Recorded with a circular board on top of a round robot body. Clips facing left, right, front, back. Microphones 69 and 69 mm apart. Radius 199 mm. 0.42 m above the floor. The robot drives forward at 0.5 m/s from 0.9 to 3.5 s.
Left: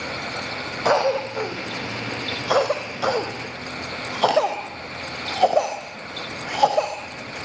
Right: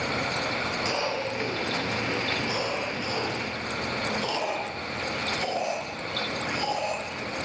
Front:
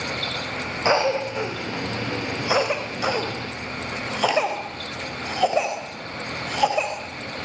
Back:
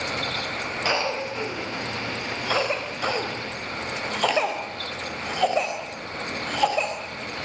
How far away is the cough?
About 4 m.